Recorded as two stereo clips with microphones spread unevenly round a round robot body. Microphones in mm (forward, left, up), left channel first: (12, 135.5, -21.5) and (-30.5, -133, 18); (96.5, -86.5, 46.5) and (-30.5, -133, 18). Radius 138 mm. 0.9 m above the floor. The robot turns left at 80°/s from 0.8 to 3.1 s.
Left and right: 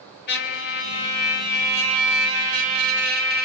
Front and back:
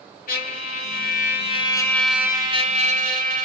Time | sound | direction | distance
0.3 | a trumpet | 30° left | 3.5 m